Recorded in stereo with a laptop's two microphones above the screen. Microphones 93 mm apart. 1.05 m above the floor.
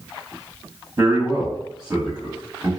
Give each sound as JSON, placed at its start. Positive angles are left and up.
{"t": 1.0, "sound": "a man speaking", "side_deg": -35, "distance_m": 1.1}